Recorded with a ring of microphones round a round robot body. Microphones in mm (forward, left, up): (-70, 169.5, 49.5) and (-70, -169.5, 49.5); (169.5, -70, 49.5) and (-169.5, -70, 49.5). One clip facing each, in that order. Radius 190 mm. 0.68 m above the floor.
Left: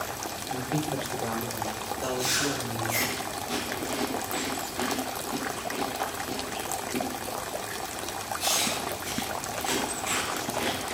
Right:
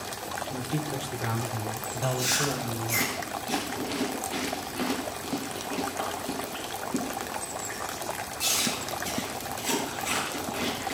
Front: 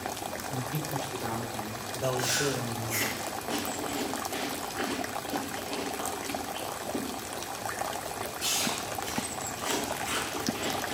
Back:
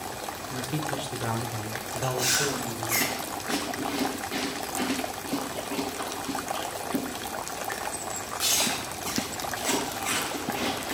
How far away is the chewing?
About 8.5 m.